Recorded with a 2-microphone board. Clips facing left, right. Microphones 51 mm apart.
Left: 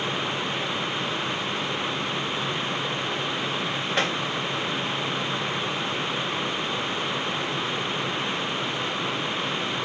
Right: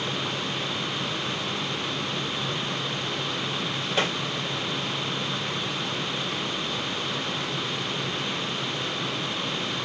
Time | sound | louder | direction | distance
4.0 | tapping | even | 55° left (ahead or behind) | 3.5 m